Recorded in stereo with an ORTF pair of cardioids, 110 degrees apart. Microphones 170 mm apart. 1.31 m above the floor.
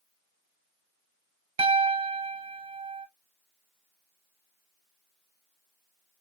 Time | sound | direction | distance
1.6 | a piano | 35° right | 1.0 m